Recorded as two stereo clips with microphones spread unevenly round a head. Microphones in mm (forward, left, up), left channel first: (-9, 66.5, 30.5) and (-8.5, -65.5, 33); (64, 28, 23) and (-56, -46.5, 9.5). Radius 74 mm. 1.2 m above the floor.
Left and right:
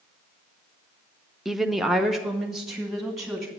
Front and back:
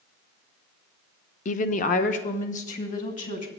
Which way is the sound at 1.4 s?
Straight ahead.